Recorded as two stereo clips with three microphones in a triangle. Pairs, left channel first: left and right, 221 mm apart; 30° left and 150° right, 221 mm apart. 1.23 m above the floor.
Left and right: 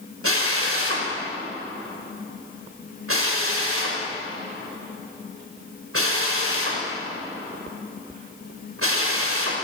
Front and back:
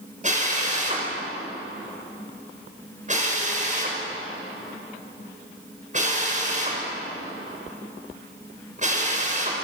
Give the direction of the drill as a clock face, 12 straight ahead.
3 o'clock.